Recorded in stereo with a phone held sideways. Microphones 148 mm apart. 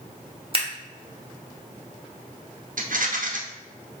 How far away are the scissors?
About 1.2 m.